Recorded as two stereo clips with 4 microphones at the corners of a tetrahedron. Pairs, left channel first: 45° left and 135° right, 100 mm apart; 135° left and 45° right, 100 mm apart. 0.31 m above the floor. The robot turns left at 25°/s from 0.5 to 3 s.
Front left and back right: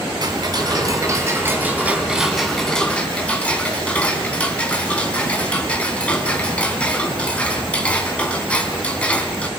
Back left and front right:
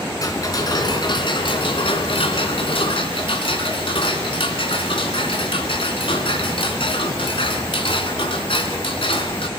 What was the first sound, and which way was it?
Ticking, 175° right.